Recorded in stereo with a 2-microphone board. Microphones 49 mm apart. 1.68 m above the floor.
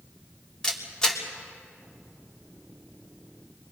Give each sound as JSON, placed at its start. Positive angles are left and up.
{"t": 0.6, "sound": "a camera shutter", "side_deg": 15, "distance_m": 2.5}